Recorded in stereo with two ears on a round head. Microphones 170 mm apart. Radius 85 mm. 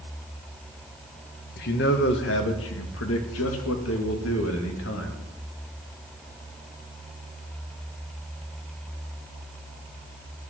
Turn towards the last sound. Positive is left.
turn(degrees=75)  # may be behind; listen again after turning